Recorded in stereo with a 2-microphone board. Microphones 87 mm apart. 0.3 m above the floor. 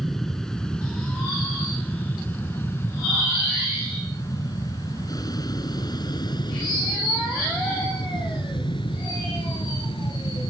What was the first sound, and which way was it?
An aircraft, 5° left (ahead or behind).